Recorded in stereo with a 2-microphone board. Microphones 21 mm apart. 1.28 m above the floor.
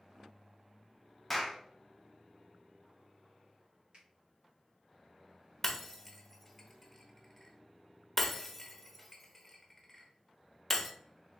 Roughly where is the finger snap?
Right.